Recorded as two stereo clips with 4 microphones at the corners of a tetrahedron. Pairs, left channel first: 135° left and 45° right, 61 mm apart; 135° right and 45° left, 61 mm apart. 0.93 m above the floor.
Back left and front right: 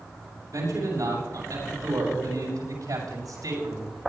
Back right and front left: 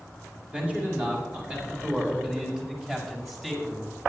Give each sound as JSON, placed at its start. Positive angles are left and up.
{"t": 0.5, "sound": "a man speaking", "azimuth_deg": -20, "distance_m": 6.0}